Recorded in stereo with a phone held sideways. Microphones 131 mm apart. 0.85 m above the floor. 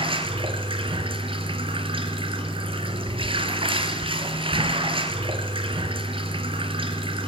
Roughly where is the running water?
Right.